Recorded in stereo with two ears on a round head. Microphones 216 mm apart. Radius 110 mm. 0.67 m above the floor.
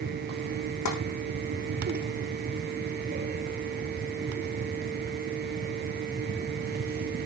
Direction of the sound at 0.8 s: 75° left (ahead or behind).